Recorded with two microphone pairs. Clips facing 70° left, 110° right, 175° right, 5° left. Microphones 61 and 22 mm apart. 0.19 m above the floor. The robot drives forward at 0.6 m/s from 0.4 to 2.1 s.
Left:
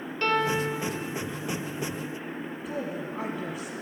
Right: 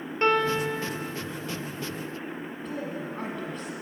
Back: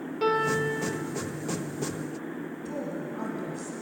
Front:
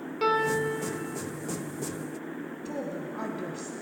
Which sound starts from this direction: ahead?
A woman speaking, at 2.6 s.